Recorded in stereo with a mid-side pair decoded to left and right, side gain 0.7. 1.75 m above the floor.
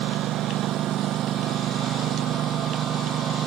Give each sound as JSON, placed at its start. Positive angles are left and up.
{"t": 0.0, "sound": "a lawn mower", "azimuth_deg": -55}